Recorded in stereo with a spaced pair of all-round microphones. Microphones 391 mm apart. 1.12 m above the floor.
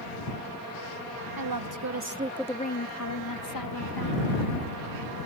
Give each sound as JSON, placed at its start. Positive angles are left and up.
{"t": 1.4, "sound": "a woman speaking", "side_deg": -65}